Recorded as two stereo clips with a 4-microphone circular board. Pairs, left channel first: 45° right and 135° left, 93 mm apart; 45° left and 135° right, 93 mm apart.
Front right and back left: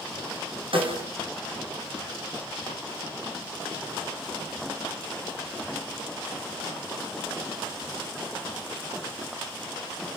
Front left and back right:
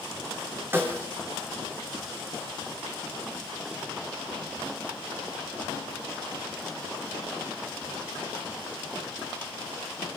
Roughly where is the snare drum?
Behind left.